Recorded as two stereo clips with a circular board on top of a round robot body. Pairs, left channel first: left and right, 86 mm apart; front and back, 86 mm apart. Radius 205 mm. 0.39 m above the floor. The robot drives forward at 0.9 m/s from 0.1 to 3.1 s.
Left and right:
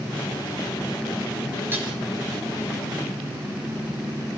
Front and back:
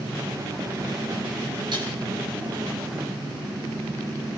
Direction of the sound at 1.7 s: 155° right.